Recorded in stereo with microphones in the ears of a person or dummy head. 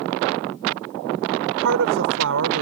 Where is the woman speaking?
70° right (ahead or behind).